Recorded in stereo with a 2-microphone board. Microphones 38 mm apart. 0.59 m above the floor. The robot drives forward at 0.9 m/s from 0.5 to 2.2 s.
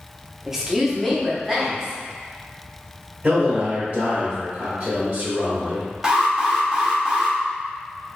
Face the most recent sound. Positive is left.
turn(degrees=-20)  # may be behind; listen again after turning